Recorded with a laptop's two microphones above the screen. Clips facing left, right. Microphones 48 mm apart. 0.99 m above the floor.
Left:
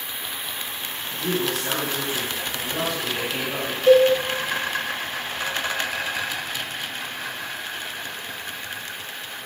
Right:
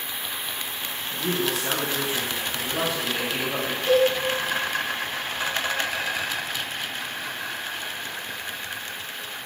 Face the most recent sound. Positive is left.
turn(degrees=55)  # may be behind; listen again after turning